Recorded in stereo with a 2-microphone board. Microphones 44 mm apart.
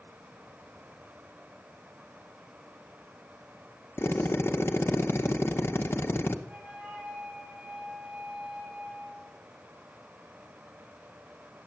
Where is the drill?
70° left (ahead or behind), 0.7 m.